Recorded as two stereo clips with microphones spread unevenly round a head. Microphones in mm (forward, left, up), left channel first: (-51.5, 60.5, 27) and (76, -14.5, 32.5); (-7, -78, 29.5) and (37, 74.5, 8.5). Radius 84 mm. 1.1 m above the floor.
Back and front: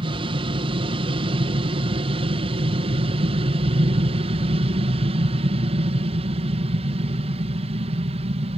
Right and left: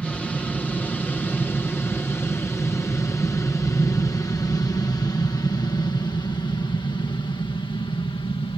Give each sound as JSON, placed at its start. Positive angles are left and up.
{"t": 0.0, "sound": "an aircraft", "azimuth_deg": -20}